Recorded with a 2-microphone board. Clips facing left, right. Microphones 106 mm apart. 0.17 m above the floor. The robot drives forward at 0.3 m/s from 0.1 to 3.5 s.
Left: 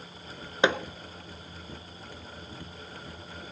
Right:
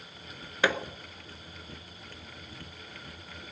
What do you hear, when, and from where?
0.6 s hammering: 20° left (ahead or behind), 0.8 m; by 0.8 s 25° left (ahead or behind), 0.8 m